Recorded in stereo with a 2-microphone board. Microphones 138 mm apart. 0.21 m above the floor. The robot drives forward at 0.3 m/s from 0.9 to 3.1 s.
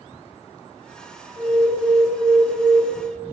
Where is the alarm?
20° right (ahead or behind), 1.4 m; by 2.8 s 15° right (ahead or behind), 1.6 m.